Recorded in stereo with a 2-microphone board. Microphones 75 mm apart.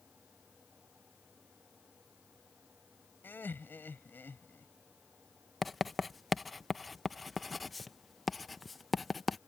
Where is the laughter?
30° left (ahead or behind).